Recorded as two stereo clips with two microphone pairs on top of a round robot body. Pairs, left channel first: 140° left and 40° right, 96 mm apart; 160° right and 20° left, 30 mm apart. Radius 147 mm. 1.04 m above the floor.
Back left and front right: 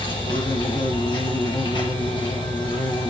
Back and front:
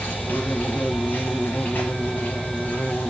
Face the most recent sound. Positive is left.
turn(degrees=165)